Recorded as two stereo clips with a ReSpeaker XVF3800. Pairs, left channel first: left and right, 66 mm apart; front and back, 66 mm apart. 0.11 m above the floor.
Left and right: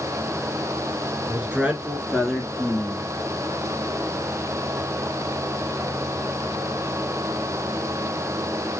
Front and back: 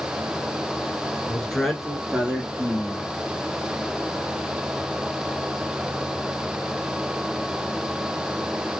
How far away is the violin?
No violin in this recording.